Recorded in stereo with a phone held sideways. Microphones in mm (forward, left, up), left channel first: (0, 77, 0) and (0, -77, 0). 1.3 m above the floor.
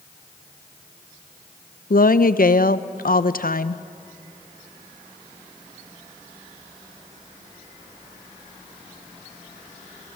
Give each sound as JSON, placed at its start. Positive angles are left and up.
{"t": 1.9, "sound": "a woman speaking", "side_deg": 70, "distance_m": 0.6}